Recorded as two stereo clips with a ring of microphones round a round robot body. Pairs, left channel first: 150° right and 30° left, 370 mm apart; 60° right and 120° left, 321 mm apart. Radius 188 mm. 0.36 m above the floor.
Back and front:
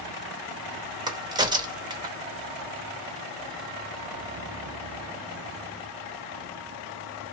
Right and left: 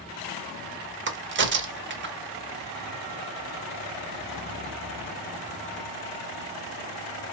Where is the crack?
100° left, 1.0 m.